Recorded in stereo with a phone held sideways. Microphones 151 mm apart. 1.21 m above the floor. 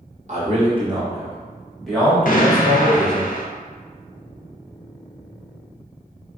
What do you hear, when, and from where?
0.3 s a man speaking: 50° right (ahead or behind), 1.1 m; by 3.2 s 25° left (ahead or behind), 2 m
2.2 s an explosion: 65° left (ahead or behind), 0.5 m